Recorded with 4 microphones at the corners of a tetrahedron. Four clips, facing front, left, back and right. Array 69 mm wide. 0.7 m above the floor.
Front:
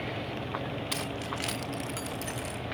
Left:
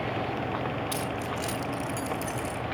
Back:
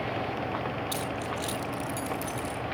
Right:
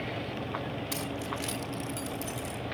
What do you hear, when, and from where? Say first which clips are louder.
0.9 s keys jangling: left 4 dB, back 2 dB; 10° right, 1.3 m; by 2.6 s 30° left, 1.9 m